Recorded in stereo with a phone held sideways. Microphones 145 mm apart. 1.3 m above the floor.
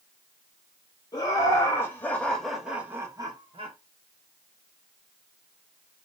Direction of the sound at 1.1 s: 30° left (ahead or behind).